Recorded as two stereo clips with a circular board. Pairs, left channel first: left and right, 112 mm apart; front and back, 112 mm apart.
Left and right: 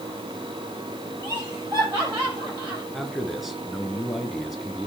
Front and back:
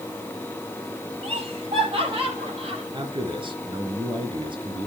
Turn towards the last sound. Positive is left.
turn(degrees=-175)